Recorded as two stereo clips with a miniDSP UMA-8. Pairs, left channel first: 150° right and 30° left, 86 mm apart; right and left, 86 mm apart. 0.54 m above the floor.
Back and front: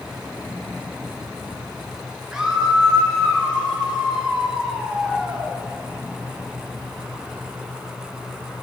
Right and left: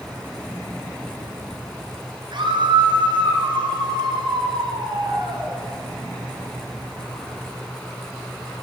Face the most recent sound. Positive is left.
turn(degrees=110)